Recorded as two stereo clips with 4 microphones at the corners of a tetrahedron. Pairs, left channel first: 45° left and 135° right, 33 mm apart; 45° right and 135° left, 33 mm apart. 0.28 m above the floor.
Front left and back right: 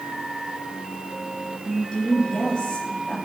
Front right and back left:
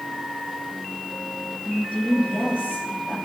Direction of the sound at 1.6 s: 20° right.